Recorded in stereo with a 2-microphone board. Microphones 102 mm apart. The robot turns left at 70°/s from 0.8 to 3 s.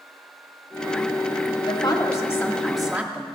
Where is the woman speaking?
80° left, 1.5 m; by 3.2 s 15° right, 1.5 m.